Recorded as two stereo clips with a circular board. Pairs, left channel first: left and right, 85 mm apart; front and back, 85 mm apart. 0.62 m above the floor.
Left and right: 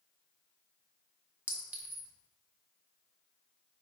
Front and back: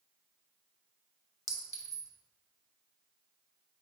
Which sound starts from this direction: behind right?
A clink, at 1.5 s.